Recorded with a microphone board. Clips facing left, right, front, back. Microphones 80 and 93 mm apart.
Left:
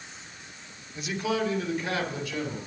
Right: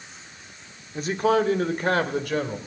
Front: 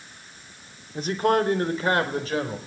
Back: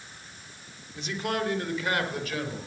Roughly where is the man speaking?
Ahead right.